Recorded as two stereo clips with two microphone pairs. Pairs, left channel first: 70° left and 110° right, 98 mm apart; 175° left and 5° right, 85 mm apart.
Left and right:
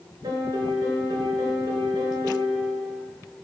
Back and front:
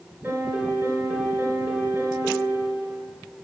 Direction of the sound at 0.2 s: 70° right.